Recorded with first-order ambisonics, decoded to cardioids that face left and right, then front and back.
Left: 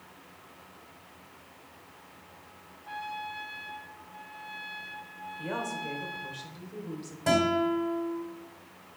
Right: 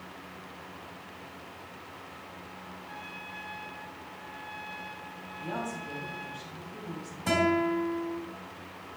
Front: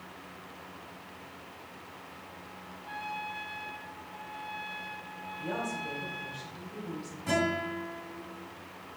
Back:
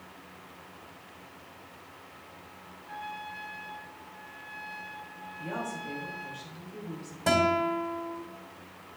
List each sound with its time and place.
2.8 s a trumpet: 50° left, 2.0 m
5.4 s a woman speaking: 80° left, 2.5 m
7.3 s a guitar: 155° left, 2.5 m